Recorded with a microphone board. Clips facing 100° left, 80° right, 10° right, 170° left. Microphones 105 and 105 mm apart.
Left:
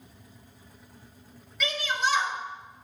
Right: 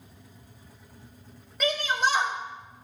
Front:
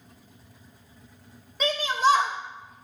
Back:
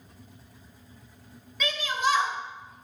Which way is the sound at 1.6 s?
55° right.